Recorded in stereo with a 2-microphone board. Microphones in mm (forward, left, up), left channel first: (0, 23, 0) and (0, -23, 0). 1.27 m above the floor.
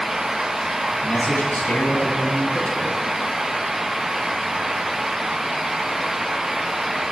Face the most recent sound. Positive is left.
turn(degrees=50)  # may be behind; listen again after turning